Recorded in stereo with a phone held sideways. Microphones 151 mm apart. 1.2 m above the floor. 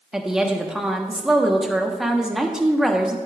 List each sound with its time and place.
0.1 s a woman speaking: 5° right (ahead or behind), 1.1 m